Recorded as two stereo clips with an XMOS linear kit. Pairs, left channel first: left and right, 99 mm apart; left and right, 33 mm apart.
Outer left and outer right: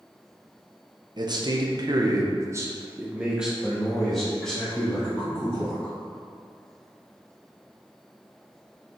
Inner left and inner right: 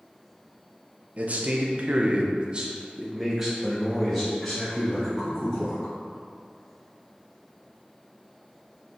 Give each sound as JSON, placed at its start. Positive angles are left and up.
{"t": 1.2, "sound": "a man speaking", "side_deg": -45, "distance_m": 0.9}